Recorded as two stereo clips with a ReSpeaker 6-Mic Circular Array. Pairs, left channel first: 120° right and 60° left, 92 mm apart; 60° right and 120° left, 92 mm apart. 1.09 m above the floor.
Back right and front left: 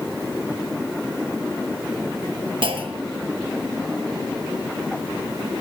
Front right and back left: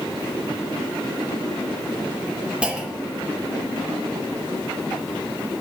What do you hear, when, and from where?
2.6 s a clunk: 40° left, 0.9 m